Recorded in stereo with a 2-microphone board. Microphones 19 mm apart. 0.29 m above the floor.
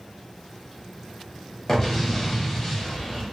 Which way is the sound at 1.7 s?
30° left (ahead or behind).